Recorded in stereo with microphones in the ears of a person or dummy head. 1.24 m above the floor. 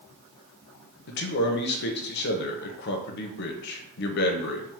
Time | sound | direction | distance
1.1 | a man speaking | 45° left (ahead or behind) | 0.7 m